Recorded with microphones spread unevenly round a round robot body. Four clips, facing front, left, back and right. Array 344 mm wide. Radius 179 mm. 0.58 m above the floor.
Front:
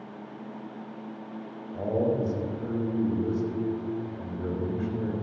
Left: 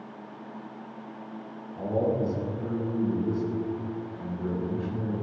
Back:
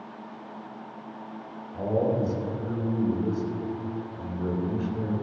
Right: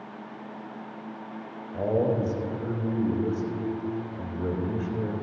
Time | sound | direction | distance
1.7 | a man speaking | 100° right | 4 m